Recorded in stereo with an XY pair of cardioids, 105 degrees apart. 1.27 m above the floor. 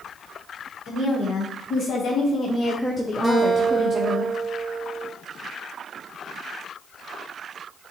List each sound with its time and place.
0.9 s a woman speaking: 65° left, 1.4 m; by 4.2 s 40° right, 0.8 m
3.2 s a guitar: 10° right, 1.5 m